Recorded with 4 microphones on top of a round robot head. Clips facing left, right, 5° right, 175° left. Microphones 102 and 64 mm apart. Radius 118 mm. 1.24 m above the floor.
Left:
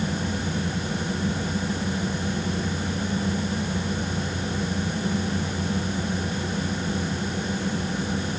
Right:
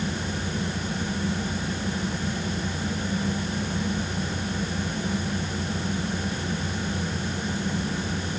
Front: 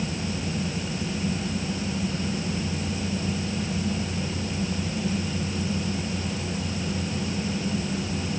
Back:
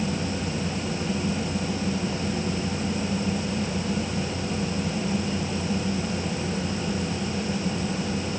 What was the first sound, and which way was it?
Only background noise.